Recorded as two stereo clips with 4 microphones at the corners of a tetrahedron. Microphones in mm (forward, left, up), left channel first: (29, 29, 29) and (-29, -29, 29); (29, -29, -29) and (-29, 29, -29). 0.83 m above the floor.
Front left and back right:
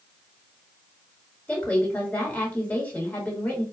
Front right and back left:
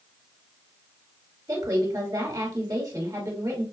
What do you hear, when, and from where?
1.5 s a woman speaking: 110° left, 1.6 m